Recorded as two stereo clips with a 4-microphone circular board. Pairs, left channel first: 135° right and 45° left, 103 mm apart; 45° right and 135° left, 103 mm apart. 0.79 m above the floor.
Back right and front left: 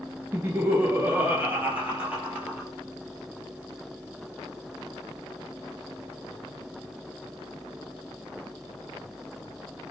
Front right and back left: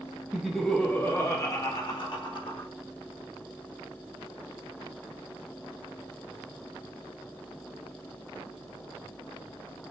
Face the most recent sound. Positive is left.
turn(degrees=-35)